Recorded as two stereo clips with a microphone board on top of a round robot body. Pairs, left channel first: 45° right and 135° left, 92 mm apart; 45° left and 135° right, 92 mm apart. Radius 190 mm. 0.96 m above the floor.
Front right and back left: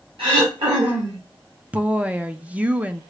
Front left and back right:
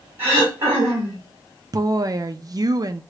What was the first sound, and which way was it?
Throat clearing, 160° left.